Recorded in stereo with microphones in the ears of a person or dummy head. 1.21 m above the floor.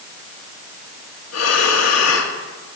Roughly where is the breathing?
Left.